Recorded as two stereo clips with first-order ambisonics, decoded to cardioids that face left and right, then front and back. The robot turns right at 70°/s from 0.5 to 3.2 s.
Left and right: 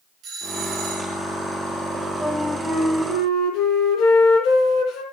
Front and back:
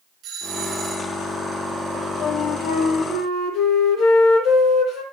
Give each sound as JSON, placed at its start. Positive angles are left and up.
{"t": 0.2, "sound": "a doorbell", "azimuth_deg": -130, "distance_m": 4.0}
{"t": 1.9, "sound": "a flute", "azimuth_deg": -30, "distance_m": 5.0}